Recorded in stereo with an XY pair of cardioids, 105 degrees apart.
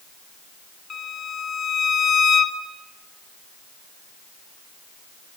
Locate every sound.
0.9 s a violin: 45° left, 2.0 m